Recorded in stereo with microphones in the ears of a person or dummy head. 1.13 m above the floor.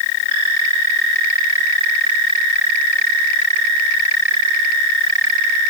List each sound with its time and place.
Only background noise.